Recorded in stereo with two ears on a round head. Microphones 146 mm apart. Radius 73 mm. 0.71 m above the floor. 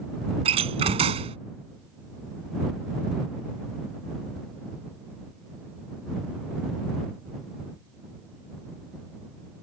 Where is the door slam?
35° right (ahead or behind).